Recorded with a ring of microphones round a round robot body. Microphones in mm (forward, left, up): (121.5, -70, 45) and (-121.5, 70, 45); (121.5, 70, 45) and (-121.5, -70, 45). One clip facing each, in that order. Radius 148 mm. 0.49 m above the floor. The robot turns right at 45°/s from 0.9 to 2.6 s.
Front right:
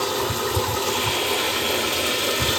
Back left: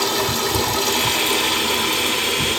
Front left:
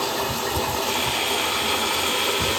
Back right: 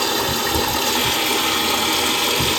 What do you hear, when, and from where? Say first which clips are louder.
0.0 s running water: back left 2 dB, back right 4 dB; 170° right, 1.8 m; by 2.6 s 95° right, 1.8 m